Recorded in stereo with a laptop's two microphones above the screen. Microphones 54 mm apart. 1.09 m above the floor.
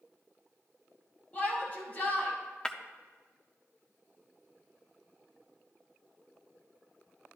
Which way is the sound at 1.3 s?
30° left (ahead or behind).